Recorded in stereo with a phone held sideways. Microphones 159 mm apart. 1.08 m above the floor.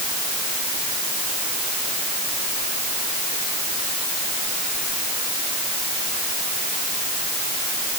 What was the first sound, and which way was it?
Only background noise.